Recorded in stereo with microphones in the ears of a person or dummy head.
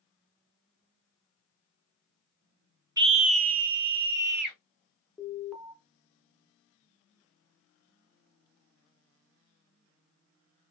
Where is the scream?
25° right (ahead or behind), 0.5 m; by 4.6 s 60° right (ahead or behind), 1.9 m.